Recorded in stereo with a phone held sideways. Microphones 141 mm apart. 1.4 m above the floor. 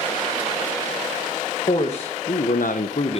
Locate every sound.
1.7 s a man speaking: 45° left (ahead or behind), 1.3 m